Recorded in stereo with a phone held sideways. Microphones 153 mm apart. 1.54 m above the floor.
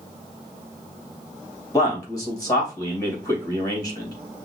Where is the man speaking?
25° left (ahead or behind), 2.5 m.